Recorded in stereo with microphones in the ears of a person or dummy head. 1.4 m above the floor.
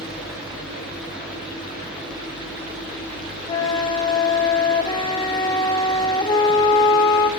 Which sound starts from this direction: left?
A flute, at 3.5 s.